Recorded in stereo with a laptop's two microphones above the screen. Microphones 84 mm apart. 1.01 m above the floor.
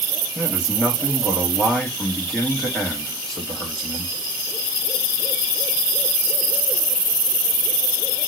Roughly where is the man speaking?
Centre.